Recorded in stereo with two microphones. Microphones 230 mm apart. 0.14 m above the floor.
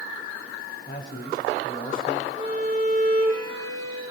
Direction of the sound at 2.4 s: 25° right (ahead or behind).